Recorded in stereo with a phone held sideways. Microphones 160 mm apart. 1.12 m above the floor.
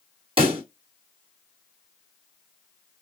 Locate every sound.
0.4 s a pop: 35° right (ahead or behind), 2 m